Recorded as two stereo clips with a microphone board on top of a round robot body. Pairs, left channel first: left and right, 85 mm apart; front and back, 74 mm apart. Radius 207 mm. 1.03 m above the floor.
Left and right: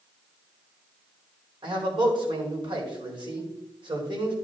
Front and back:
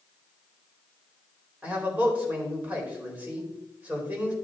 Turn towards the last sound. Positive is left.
turn(degrees=-110)